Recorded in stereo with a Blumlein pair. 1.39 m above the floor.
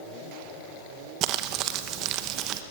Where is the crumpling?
35° right, 1.0 m.